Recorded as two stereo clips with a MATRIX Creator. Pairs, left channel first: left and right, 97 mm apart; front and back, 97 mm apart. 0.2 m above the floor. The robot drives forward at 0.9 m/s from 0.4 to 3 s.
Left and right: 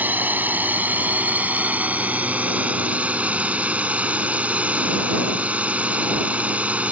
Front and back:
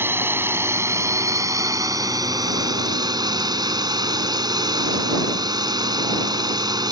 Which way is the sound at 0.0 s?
140° right.